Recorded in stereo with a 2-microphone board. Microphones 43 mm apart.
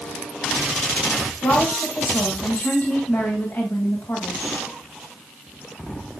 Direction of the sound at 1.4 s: 70° left (ahead or behind).